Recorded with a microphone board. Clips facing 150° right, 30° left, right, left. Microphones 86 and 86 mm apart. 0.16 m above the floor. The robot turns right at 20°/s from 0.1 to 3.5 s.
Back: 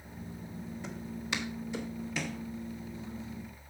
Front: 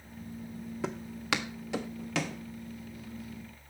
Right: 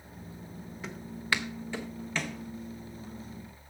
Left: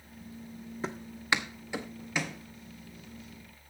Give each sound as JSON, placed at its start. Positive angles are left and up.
{"t": 0.8, "sound": "footsteps", "azimuth_deg": 30, "distance_m": 0.7}